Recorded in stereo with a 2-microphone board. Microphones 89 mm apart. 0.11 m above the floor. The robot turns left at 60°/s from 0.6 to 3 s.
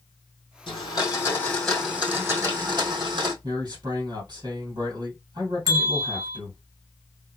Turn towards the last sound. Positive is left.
turn(degrees=-45)  # may be behind; listen again after turning